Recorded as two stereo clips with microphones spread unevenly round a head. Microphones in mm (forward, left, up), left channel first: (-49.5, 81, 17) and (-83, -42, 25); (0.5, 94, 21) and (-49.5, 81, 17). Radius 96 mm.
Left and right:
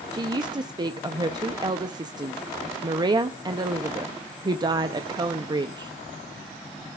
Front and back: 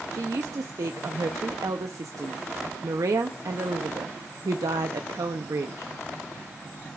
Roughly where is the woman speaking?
Behind.